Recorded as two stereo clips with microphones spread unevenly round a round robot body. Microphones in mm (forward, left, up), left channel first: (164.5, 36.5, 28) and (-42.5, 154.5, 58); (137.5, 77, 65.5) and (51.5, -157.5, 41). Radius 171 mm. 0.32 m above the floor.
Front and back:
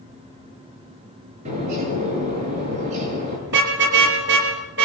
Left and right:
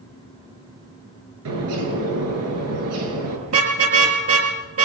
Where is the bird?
140° right, 6.5 m.